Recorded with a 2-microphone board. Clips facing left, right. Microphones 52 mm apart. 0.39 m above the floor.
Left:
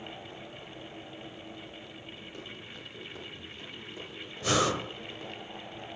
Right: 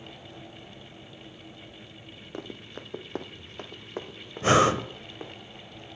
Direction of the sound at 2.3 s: 50° right (ahead or behind).